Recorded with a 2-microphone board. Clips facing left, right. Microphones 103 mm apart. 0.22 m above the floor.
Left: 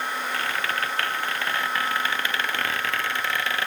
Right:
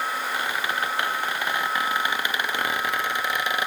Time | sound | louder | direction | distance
0.3 | a squeak | even | 15° right (ahead or behind) | ?